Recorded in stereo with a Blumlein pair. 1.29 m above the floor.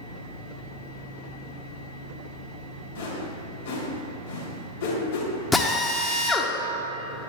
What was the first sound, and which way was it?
A whoosh, 65° left.